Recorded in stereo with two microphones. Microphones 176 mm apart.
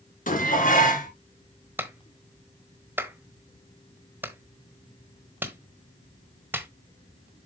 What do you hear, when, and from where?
0.3 s dishes clattering: 50° left (ahead or behind), 2 m
1.8 s a clap: 10° right (ahead or behind), 1.3 m